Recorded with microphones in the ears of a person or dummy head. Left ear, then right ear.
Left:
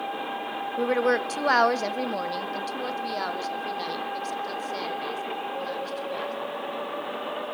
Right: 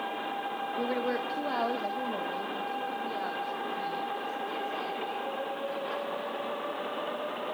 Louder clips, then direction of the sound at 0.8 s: Left 9 dB; 30° left (ahead or behind).